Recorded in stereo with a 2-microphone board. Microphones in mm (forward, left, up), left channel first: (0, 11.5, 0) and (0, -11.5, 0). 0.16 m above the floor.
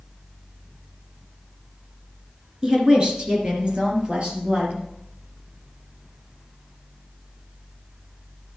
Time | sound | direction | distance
2.6 | a woman speaking | 30° right (ahead or behind) | 2.5 m